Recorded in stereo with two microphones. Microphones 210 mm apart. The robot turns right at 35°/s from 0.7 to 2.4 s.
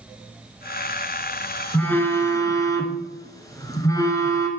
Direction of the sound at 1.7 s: 5° left (ahead or behind).